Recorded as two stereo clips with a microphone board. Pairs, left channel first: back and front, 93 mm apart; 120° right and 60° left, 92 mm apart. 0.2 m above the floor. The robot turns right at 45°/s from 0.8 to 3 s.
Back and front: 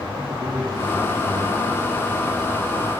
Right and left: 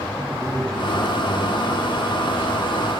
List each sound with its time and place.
0.1 s a man speaking: 45° right, 6.5 m; by 2.3 s 25° left, 6.5 m